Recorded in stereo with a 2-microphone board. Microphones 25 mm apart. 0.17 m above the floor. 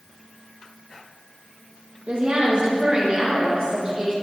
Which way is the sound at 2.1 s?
50° right (ahead or behind).